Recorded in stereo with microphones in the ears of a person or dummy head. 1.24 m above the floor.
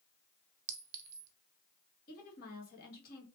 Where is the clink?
40° right (ahead or behind), 0.5 m.